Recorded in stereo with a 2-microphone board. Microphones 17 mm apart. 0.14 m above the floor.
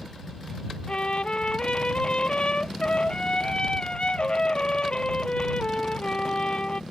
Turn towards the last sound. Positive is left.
turn(degrees=65)  # may be behind; listen again after turning